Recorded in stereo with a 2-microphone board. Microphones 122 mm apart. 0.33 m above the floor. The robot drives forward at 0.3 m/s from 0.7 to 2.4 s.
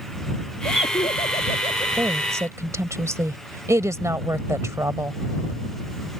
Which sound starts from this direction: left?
Laughter, at 0.7 s.